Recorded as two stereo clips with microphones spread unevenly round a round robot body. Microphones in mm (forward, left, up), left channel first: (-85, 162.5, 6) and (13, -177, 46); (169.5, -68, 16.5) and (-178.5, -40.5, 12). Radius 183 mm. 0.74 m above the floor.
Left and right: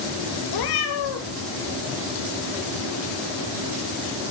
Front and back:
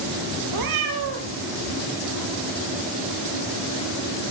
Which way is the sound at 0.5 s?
135° left.